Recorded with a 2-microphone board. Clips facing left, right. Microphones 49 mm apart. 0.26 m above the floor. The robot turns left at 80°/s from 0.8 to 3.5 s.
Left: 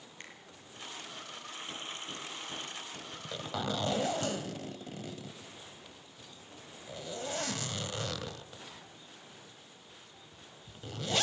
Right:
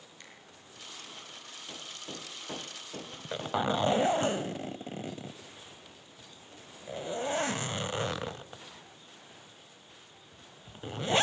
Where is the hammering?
5° right (ahead or behind), 3.5 m; by 4.1 s 30° right (ahead or behind), 3.5 m.